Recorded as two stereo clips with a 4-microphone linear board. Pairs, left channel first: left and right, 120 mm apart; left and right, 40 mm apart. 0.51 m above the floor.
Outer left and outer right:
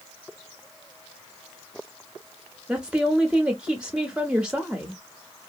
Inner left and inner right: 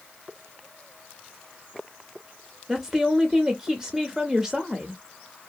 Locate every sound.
2.7 s a woman speaking: 10° right (ahead or behind), 0.6 m